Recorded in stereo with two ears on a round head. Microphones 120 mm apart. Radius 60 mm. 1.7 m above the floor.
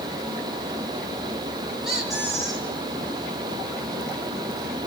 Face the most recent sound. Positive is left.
turn(degrees=-5)  # may be behind; listen again after turning